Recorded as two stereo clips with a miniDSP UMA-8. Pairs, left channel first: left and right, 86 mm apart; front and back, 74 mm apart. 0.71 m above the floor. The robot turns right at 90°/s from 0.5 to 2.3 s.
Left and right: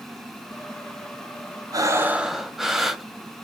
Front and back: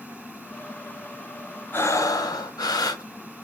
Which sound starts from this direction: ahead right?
Breathing, at 1.7 s.